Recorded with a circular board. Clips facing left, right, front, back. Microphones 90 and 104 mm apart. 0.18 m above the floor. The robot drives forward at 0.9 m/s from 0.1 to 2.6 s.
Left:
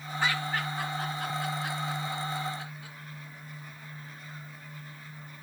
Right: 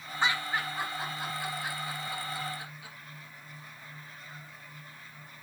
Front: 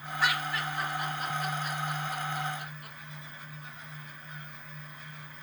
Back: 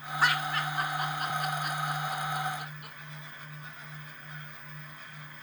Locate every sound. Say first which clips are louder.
0.2 s laughter: even, back 2 dB; 150° right, 1.9 m; by 3.0 s 165° right, 3.5 m